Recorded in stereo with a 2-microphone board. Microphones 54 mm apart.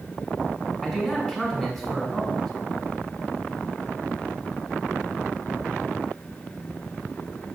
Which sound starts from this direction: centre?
A man speaking, at 0.8 s.